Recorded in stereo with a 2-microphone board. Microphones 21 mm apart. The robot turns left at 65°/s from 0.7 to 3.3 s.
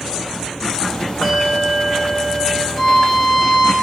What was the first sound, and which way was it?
A bell, 70° left.